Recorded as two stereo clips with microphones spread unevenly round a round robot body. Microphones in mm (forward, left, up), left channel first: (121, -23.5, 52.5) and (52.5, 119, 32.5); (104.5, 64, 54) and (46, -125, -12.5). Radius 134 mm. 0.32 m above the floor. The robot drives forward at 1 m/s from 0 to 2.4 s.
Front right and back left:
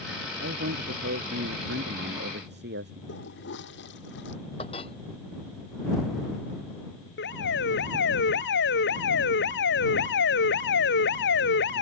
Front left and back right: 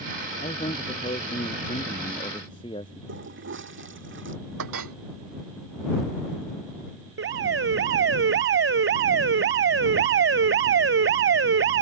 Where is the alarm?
90° right.